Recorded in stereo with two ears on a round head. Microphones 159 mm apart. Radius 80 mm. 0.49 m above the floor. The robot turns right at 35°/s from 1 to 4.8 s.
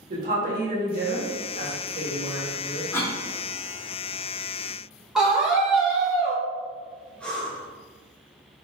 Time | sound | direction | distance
0.1 | a woman speaking | 70° right | 1.3 m
2.9 | a cough | 10° left (ahead or behind) | 1.4 m
5.2 | a scream | 5° right (ahead or behind) | 1.5 m
7.2 | breathing | 5° left (ahead or behind) | 0.9 m